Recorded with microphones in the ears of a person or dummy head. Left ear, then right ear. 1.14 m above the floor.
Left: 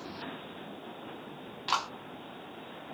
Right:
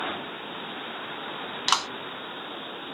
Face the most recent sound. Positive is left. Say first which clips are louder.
# right 6 dB
turn(degrees=-55)  # may be behind; listen again after turning